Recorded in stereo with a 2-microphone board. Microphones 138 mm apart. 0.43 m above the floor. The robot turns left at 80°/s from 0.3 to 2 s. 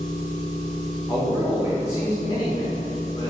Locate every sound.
0.0 s an engine running: 70° right, 1.4 m; by 3.3 s 150° left, 1.4 m
1.1 s a man speaking: 5° left (ahead or behind), 0.8 m; by 3.3 s 30° left (ahead or behind), 0.8 m